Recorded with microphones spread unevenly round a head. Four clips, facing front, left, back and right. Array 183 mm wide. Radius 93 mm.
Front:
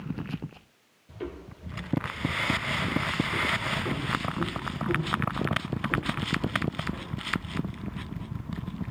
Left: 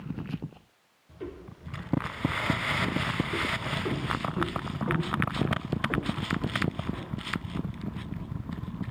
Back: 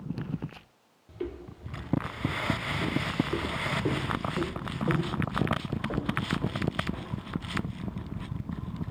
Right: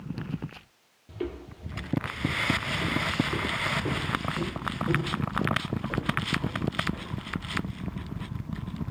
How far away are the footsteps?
About 3.5 m.